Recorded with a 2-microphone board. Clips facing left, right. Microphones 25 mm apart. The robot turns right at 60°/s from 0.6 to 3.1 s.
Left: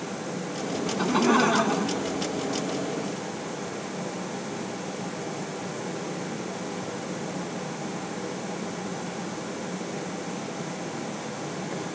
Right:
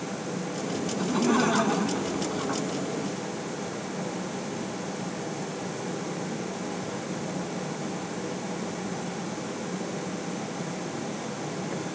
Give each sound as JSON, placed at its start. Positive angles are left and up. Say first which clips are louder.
{"t": 0.9, "sound": "laughter", "louder": "left 3 dB", "azimuth_deg": 125}